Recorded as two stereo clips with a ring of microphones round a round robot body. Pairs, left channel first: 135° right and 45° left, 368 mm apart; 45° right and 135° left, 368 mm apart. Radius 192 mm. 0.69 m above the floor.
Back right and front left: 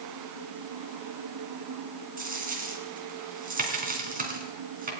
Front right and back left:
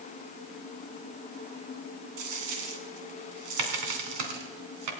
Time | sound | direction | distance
2.2 | a dropped coin | 115° left | 2.5 m